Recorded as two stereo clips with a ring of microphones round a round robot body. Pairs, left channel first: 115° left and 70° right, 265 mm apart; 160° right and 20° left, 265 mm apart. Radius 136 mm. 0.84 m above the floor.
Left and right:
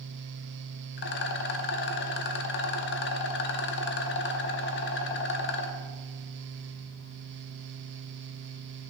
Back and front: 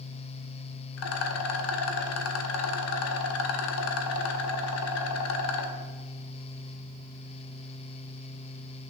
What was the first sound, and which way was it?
A rattle, 165° left.